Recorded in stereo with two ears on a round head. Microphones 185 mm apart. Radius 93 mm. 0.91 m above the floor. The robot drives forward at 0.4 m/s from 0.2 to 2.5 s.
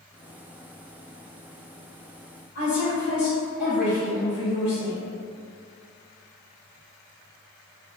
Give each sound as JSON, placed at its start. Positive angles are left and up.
{"t": 2.5, "sound": "a woman speaking", "side_deg": 45, "distance_m": 2.0}